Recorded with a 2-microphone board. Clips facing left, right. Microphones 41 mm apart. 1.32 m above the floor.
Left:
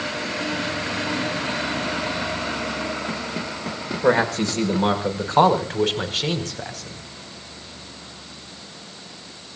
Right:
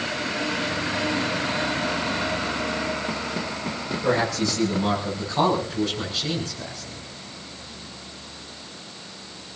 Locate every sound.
4.0 s a man speaking: 40° left (ahead or behind), 6 m; by 7.0 s 60° left (ahead or behind), 5.5 m